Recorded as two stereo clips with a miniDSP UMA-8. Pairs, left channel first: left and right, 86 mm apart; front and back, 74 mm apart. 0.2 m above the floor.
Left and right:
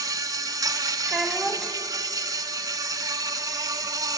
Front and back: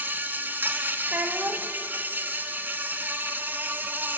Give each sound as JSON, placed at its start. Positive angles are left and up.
{"t": 0.0, "sound": "an insect", "azimuth_deg": -120, "distance_m": 0.9}
{"t": 1.1, "sound": "a child speaking", "azimuth_deg": -165, "distance_m": 1.0}